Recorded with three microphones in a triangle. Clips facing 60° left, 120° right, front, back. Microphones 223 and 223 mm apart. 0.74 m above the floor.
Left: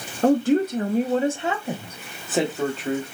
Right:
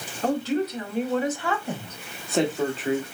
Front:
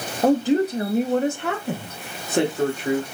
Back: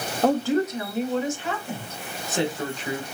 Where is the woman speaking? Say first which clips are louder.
Left 6 dB, front 4 dB; 80° left, 0.8 m; by 3.1 s 35° right, 1.8 m.